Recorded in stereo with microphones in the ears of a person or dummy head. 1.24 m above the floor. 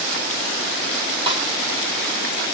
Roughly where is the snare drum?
Right.